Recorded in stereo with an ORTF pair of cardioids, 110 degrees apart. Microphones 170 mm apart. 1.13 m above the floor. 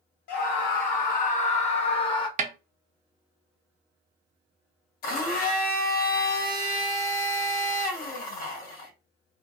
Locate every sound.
0.3 s a scream: 70° left, 1.6 m; by 2.3 s 25° left, 1.2 m
2.4 s a snare drum: 45° right, 0.7 m
5.0 s a blender: 60° left, 1.5 m